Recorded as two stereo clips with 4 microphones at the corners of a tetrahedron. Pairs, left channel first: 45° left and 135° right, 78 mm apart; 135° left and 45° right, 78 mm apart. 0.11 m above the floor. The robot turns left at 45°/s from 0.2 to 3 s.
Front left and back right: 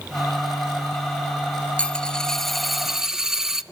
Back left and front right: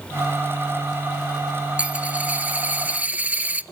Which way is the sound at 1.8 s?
10° right.